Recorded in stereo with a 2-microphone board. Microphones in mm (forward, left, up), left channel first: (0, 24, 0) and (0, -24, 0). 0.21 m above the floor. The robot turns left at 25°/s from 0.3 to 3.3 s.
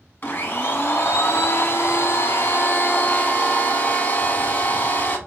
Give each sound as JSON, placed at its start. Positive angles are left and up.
{"t": 0.2, "sound": "a blender", "azimuth_deg": 125, "distance_m": 0.8}